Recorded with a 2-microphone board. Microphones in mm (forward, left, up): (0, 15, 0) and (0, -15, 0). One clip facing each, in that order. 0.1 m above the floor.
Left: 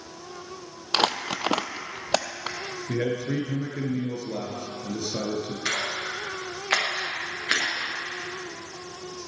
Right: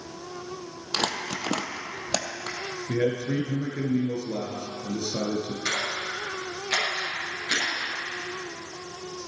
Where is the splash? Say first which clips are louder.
Left 1 dB; 40° left (ahead or behind), 5 m.